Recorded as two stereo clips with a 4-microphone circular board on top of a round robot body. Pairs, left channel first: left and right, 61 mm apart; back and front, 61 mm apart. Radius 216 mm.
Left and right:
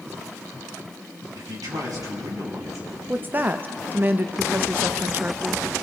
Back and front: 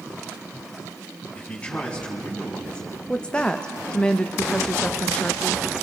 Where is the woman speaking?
120° right, 1.1 m.